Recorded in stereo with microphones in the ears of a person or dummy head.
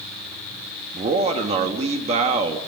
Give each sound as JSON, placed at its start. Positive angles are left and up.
{"t": 0.9, "sound": "a man speaking", "side_deg": -35, "distance_m": 1.8}